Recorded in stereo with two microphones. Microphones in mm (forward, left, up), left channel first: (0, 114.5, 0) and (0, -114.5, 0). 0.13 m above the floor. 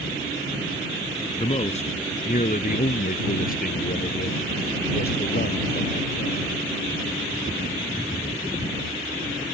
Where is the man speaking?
25° left (ahead or behind); by 6.5 s 45° left (ahead or behind).